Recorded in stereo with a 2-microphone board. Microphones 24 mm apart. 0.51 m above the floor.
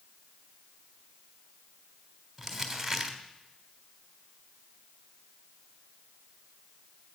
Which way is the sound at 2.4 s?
Centre (ahead or behind).